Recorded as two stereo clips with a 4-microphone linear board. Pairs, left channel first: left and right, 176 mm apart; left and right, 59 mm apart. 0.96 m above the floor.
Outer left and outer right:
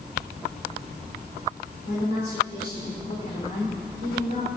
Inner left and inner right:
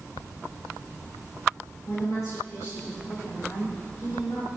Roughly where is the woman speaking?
Left.